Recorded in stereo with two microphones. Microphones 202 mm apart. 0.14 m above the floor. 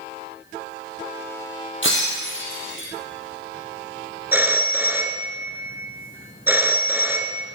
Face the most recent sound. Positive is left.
turn(degrees=-10)  # may be behind; listen again after turning